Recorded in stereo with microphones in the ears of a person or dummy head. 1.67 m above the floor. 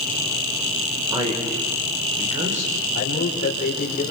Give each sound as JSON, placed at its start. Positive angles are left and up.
{"t": 1.1, "sound": "a man speaking", "side_deg": -25, "distance_m": 5.5}
{"t": 2.9, "sound": "a man speaking", "side_deg": 50, "distance_m": 5.0}